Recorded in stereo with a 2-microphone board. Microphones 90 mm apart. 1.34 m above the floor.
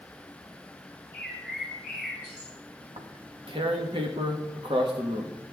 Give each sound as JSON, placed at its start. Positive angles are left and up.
{"t": 1.1, "sound": "a bird", "side_deg": -10, "distance_m": 4.5}
{"t": 2.8, "sound": "tearing paper", "side_deg": -80, "distance_m": 1.5}